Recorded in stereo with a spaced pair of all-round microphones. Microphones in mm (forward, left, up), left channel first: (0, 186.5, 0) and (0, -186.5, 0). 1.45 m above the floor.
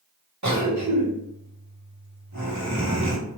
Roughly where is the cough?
Right.